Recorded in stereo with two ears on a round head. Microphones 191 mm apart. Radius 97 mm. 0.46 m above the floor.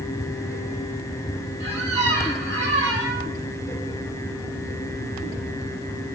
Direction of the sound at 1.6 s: 55° right (ahead or behind).